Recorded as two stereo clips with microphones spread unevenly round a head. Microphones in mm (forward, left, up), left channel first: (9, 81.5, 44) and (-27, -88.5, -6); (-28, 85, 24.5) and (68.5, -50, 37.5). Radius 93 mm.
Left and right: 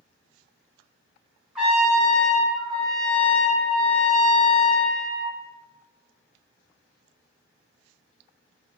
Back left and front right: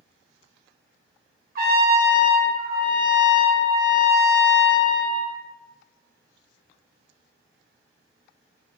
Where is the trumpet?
20° right, 1.3 m.